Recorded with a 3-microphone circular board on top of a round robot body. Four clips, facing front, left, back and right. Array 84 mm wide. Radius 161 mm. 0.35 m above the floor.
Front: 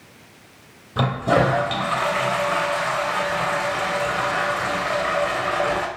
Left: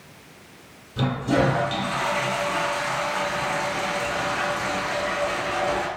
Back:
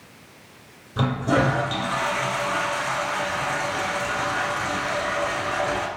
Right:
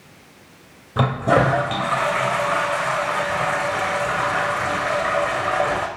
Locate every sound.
1.0 s a toilet flushing: 65° right, 2 m